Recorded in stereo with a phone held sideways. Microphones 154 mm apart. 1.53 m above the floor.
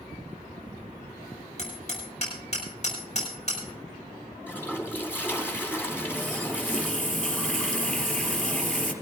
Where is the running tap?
10° left (ahead or behind), 3 m.